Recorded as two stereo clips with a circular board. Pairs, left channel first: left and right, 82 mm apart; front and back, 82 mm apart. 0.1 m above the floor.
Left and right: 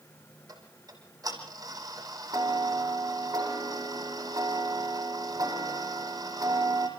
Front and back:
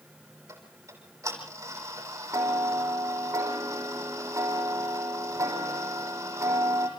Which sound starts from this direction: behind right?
Ticking, at 0.5 s.